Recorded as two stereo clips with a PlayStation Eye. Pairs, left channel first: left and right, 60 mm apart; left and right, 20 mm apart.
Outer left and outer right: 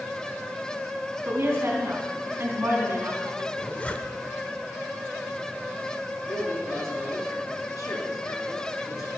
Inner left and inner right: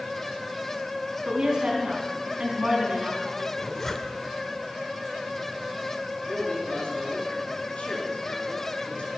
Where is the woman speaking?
40° right (ahead or behind), 4.5 m.